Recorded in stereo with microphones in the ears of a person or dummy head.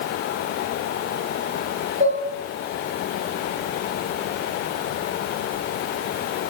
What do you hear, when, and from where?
2.0 s dishes clattering: 45° right (ahead or behind), 3 m